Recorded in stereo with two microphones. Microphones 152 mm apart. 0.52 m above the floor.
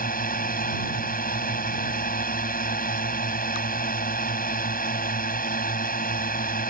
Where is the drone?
65° left (ahead or behind).